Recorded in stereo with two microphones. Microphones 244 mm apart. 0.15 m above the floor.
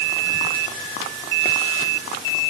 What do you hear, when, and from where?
Only background noise.